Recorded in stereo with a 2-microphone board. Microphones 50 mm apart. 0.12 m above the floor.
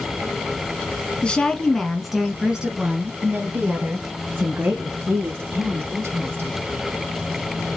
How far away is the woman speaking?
About 1.3 m.